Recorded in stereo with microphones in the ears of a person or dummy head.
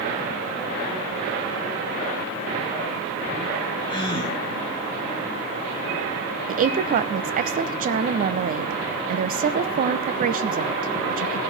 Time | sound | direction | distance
3.9 | a gasp | 20° left (ahead or behind) | 1.6 m
6.5 | a woman speaking | 45° right (ahead or behind) | 0.6 m